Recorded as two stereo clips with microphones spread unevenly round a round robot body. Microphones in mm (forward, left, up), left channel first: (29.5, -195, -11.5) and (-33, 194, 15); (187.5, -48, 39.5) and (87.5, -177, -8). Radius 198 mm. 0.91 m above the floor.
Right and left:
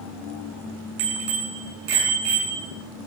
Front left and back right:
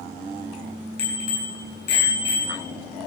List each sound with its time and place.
1.0 s a bicycle bell: 45° left, 7.5 m; by 2.7 s 50° left, 8.5 m